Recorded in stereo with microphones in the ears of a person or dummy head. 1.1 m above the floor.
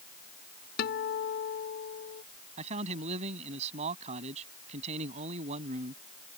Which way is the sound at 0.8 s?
60° left (ahead or behind).